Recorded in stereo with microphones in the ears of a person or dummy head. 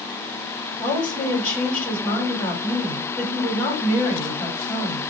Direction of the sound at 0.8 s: 25° left (ahead or behind).